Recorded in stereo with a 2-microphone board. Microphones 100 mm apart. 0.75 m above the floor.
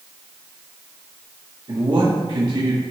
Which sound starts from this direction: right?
A man speaking, at 1.7 s.